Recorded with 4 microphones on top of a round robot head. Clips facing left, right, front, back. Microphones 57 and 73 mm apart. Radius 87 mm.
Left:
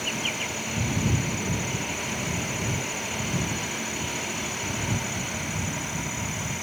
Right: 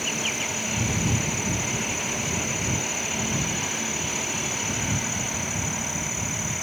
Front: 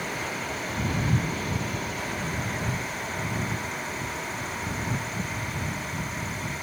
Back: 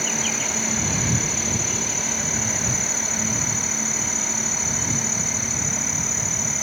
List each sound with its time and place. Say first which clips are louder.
0.0 s an insect: right 1 dB, back 3 dB; 175° right